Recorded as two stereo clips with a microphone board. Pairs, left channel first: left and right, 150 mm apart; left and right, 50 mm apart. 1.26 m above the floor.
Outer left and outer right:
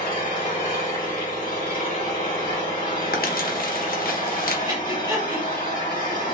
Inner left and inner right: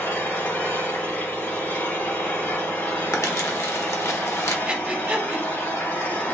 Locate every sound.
0.0 s an engine running: 60° left (ahead or behind), 1.9 m
3.1 s crumpling: 75° left (ahead or behind), 0.8 m
4.7 s breathing: 25° right (ahead or behind), 1.0 m